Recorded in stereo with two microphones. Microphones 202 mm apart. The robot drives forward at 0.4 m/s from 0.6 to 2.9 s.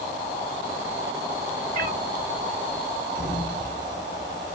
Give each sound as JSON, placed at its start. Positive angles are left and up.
{"t": 1.7, "sound": "a cat meowing", "side_deg": -45, "distance_m": 1.6}
{"t": 3.1, "sound": "a sliding door", "side_deg": 55, "distance_m": 1.2}